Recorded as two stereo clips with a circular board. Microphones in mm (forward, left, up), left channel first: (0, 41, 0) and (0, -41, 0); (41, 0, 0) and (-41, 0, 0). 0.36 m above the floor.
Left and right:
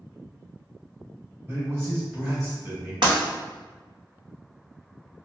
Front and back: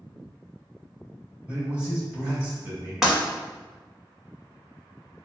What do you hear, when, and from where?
1.5 s a man speaking: 120° right, 1.7 m
3.0 s breaking glass: 100° right, 1.2 m